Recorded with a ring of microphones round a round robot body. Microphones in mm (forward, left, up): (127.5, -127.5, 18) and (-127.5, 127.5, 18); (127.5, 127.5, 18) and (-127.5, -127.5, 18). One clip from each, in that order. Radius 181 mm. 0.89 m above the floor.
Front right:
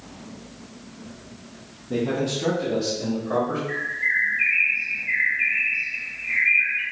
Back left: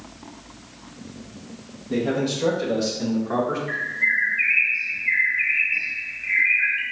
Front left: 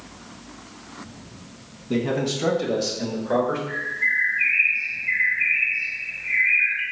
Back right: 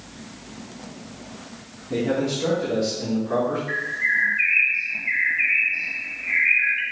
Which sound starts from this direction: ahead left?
A man speaking, at 1.9 s.